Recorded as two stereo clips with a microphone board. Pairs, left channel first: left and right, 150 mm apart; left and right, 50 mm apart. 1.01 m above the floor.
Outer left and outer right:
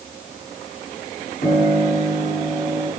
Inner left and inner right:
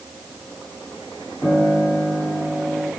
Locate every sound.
1.4 s a piano: 55° left (ahead or behind), 8.5 m